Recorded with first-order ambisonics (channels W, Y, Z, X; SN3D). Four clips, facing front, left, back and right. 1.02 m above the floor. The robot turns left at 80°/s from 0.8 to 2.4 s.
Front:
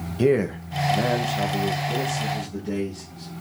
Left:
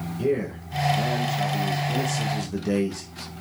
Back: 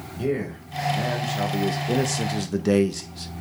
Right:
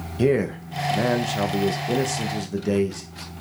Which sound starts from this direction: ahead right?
A man speaking, at 0.2 s.